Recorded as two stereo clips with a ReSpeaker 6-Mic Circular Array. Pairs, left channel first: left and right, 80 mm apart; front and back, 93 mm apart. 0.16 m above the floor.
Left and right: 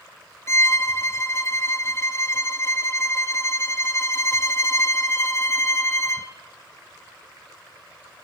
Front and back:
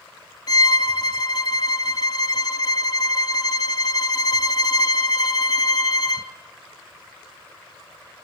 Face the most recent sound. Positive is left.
turn(degrees=40)